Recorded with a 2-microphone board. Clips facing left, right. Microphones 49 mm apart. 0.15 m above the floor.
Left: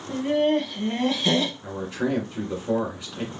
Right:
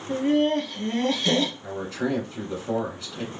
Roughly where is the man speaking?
Centre.